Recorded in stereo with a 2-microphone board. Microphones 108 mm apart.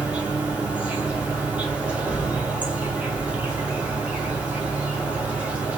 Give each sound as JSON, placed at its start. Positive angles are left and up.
{"t": 0.0, "sound": "an insect", "side_deg": -10, "distance_m": 1.7}